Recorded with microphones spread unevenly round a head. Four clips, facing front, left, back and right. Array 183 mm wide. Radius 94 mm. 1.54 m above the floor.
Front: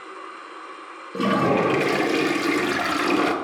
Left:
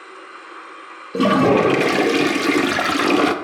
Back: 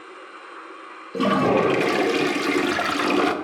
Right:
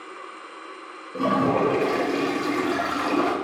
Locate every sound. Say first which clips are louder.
1.1 s a toilet flushing: left 7 dB, back 1 dB; 100° left, 0.6 m